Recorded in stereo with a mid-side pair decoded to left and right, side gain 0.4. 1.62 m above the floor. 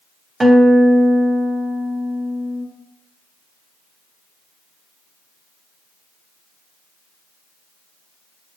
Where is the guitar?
30° right, 0.6 m.